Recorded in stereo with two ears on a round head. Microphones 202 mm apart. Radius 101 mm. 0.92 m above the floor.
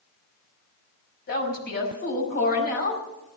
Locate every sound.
1.3 s a woman speaking: 45° left (ahead or behind), 5.5 m